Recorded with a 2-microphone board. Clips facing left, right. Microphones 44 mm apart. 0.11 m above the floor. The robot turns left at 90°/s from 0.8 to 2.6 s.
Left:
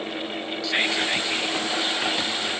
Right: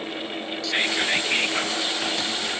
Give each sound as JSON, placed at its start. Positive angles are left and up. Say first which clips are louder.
{"t": 0.6, "sound": "whispering", "louder": "even", "azimuth_deg": 5, "distance_m": 2.5}